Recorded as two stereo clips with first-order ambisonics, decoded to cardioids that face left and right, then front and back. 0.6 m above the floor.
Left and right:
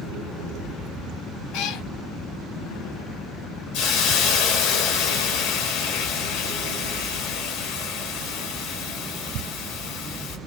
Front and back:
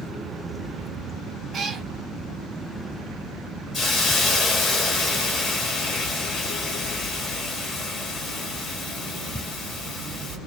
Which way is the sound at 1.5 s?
110° left.